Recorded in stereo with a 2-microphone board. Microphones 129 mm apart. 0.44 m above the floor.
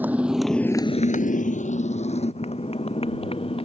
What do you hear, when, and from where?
0.0 s a motorcycle: 15° right (ahead or behind); by 3.6 s 45° left (ahead or behind)